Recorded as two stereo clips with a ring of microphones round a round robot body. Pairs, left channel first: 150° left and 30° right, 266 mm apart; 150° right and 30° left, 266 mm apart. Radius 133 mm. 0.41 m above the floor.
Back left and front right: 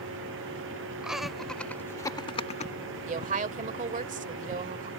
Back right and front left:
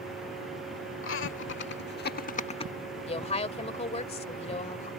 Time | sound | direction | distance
1.0 | laughter | 115° right | ?
3.1 | a woman speaking | 85° right | ?